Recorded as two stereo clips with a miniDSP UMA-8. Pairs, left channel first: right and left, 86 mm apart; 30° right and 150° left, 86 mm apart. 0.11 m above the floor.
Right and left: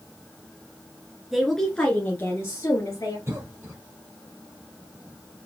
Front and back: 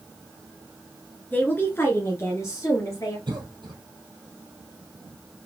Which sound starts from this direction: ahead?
A woman speaking, at 1.3 s.